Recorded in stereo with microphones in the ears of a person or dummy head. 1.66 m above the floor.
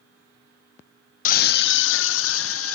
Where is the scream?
50° left (ahead or behind), 0.6 m; by 2.8 s 85° left, 1.5 m.